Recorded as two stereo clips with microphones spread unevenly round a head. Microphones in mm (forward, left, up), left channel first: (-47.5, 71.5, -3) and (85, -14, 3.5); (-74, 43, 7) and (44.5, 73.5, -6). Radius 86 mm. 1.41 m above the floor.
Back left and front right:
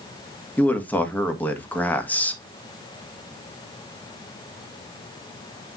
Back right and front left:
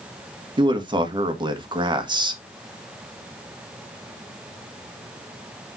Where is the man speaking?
65° left, 1.8 m.